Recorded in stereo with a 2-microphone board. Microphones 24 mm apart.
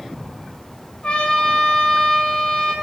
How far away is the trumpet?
About 3.5 m.